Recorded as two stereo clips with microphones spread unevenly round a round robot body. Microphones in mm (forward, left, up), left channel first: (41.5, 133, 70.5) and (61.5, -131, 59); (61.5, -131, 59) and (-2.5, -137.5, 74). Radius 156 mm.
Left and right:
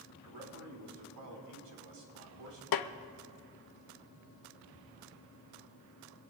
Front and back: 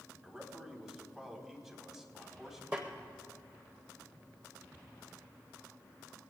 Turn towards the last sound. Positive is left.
turn(degrees=105)